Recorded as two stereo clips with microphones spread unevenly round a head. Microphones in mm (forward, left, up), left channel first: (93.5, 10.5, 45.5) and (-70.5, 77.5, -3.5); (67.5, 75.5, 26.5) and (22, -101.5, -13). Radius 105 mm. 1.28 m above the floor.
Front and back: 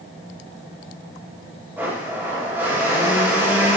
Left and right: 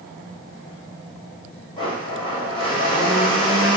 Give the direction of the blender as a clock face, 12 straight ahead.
10 o'clock.